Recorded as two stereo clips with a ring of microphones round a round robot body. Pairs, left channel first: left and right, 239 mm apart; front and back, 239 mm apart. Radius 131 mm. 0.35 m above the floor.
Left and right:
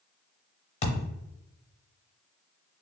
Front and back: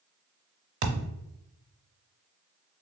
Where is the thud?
155° left, 0.6 m.